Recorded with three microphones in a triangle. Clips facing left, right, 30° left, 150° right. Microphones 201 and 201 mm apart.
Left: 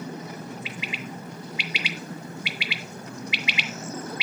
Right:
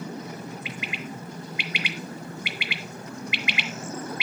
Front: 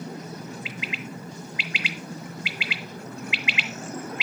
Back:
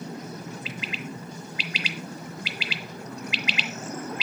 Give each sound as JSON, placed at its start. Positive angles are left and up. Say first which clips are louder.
{"t": 0.7, "sound": "a bird", "louder": "even, even", "azimuth_deg": -110, "distance_m": 0.8}